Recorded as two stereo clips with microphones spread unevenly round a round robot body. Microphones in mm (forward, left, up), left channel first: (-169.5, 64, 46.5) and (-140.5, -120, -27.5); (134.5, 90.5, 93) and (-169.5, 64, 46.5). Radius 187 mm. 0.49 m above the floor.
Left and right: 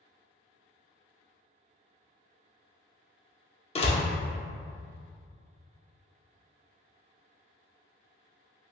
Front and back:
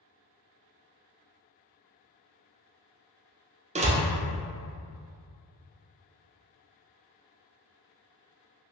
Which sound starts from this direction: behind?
A door slam, at 3.8 s.